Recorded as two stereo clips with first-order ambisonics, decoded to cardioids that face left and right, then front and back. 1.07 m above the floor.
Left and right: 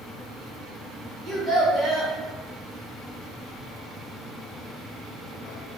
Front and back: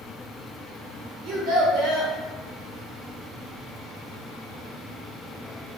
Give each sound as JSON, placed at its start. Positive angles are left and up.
{"t": 1.2, "sound": "a child speaking", "azimuth_deg": -165, "distance_m": 1.9}